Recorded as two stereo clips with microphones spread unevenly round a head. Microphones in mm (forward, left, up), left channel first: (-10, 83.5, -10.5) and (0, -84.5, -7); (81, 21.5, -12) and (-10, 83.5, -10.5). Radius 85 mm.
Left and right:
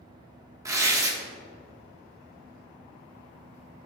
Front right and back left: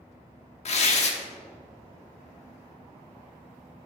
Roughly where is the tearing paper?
Ahead.